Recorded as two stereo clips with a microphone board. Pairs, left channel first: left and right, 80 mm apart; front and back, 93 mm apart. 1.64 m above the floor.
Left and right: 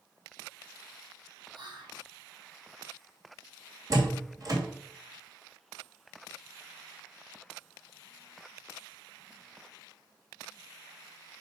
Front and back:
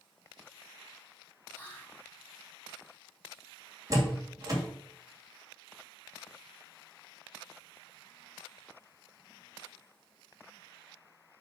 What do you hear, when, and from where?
1.5 s whispering: 70° right, 1.7 m
3.9 s a door slam: 130° right, 2 m